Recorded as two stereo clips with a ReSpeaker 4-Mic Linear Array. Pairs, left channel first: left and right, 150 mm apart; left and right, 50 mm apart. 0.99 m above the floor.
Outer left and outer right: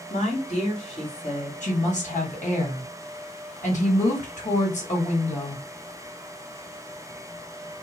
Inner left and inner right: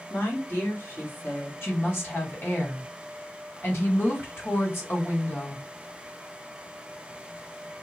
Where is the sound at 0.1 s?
50° left (ahead or behind), 1.6 m.